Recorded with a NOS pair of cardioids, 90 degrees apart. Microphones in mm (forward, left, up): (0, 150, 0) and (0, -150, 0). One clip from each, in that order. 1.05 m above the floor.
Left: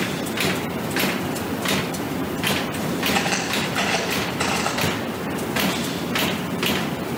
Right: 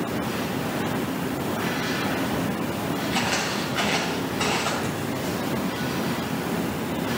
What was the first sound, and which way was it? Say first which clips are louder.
Footsteps: left 2 dB; 35° left.